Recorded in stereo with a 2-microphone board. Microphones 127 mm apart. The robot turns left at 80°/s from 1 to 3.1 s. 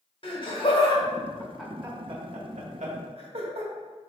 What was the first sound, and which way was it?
Laughter, 45° left (ahead or behind).